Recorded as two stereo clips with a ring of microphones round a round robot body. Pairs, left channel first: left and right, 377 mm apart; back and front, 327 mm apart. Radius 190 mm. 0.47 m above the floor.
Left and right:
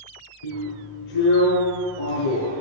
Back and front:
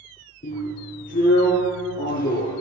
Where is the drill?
115° left, 4.5 m.